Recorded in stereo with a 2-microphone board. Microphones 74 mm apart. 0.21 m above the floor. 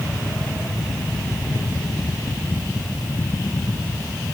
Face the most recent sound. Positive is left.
No sound to turn to.